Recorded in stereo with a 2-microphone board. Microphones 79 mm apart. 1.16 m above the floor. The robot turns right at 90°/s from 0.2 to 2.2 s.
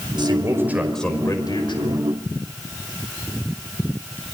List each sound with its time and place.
0.2 s a man speaking: 65° right, 5 m; by 2.0 s 100° left, 5 m